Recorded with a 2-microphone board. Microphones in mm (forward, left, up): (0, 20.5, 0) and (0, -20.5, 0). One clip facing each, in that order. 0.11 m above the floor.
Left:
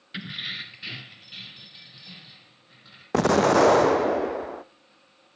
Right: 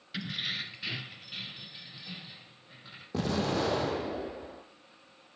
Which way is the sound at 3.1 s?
75° left (ahead or behind).